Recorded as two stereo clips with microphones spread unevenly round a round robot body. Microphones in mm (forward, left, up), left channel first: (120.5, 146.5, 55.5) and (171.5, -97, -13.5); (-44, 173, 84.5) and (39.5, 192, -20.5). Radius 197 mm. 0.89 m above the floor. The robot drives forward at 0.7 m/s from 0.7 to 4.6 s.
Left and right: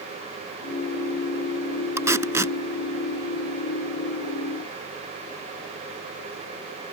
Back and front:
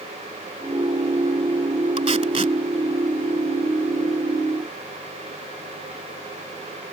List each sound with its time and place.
2.0 s tape being pulled: 5° left